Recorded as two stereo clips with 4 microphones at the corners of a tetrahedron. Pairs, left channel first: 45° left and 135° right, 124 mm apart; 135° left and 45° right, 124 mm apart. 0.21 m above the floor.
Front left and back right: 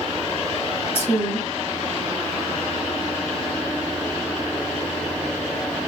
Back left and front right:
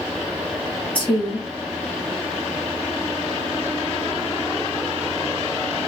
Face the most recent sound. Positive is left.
turn(degrees=110)